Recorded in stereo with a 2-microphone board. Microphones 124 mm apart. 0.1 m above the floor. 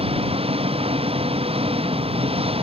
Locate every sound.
0.0 s an engine running: 50° right (ahead or behind)